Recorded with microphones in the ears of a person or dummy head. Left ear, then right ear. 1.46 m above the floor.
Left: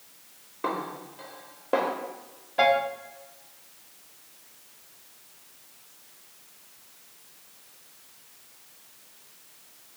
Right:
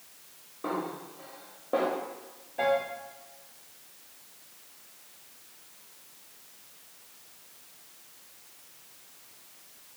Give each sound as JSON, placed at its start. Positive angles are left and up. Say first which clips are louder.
{"t": 0.6, "sound": "a snare drum", "louder": "left 3 dB", "side_deg": 60, "distance_m": 1.0}
{"t": 2.6, "sound": "a piano", "louder": "left 5 dB", "side_deg": 55, "distance_m": 0.8}